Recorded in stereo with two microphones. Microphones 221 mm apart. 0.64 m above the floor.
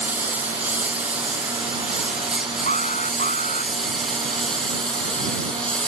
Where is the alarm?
35° left (ahead or behind).